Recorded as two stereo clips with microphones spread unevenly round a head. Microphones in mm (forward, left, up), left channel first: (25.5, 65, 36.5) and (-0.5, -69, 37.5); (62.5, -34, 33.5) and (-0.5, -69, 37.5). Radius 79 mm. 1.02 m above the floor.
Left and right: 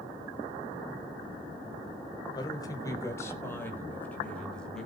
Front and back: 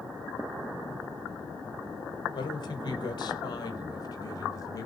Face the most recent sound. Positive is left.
turn(degrees=-10)